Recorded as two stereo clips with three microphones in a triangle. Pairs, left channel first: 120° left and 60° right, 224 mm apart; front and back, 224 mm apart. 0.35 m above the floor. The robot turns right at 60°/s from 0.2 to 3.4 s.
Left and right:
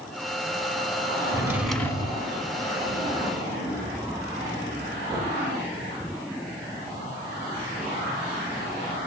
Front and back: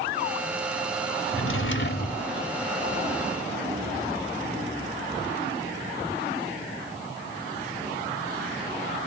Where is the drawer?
10° left, 0.6 m; by 2.3 s 65° left, 0.6 m.